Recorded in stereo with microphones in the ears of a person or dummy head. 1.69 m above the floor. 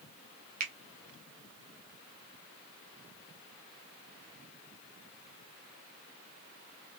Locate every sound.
0.6 s a finger snap: 40° right (ahead or behind), 1.3 m